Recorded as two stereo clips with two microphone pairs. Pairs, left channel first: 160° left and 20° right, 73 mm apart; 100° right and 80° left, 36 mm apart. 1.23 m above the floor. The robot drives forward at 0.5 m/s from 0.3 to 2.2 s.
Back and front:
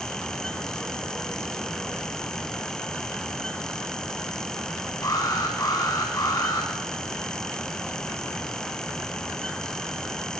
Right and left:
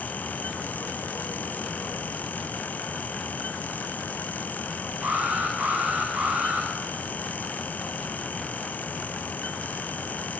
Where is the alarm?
120° left, 7.5 m.